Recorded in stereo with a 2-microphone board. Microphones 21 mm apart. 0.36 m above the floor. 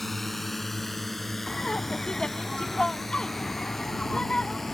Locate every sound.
0.0 s a drone: 5° left (ahead or behind)
1.5 s laughter: 45° left (ahead or behind)